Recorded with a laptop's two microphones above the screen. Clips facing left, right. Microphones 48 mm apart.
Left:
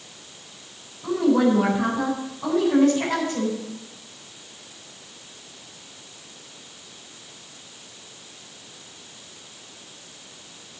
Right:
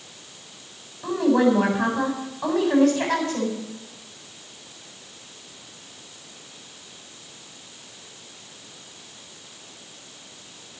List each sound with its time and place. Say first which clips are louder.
1.0 s a woman speaking: even; 80° right, 8.5 m